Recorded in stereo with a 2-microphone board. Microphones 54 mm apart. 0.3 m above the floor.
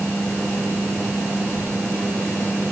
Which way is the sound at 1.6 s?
30° right (ahead or behind).